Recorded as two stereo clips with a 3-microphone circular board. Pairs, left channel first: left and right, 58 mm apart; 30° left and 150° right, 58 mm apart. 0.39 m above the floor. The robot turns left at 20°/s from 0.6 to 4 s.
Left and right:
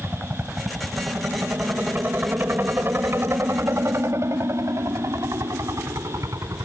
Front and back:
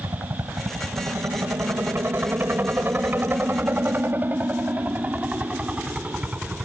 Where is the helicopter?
140° right; by 6.7 s 80° right.